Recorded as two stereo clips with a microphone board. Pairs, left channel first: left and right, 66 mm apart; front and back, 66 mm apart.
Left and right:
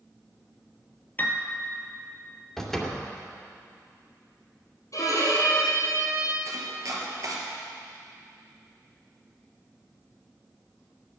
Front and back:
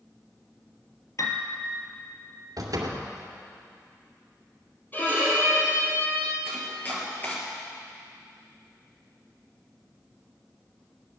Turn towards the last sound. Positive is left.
turn(degrees=-60)